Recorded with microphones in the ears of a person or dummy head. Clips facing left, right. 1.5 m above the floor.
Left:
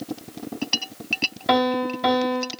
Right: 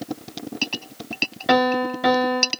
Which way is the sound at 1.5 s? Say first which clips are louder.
Right 2 dB; 5° right (ahead or behind).